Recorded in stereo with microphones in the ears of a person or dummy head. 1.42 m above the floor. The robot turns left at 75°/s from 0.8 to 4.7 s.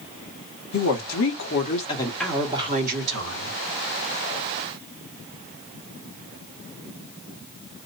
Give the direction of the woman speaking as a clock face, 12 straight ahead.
8 o'clock.